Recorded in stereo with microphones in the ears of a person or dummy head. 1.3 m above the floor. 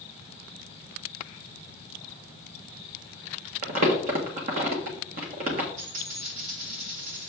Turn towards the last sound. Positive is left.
turn(degrees=-75)  # may be behind; listen again after turning